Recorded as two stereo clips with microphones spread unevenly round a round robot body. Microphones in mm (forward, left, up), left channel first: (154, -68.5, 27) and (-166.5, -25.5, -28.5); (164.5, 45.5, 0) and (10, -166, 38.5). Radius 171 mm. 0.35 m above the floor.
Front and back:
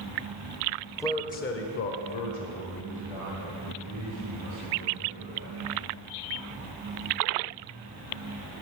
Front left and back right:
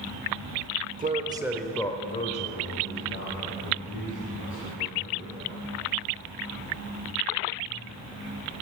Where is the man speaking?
100° right, 0.9 m; by 5.9 s 15° left, 4 m.